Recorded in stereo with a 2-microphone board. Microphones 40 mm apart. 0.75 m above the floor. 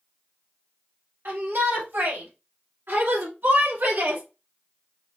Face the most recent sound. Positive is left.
turn(degrees=-60)  # may be behind; listen again after turning